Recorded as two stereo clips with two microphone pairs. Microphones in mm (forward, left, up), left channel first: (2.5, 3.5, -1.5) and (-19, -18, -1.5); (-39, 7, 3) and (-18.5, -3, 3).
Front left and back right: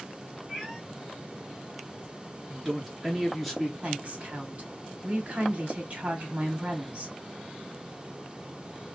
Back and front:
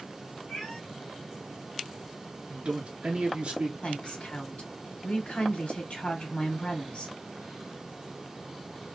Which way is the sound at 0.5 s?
125° left.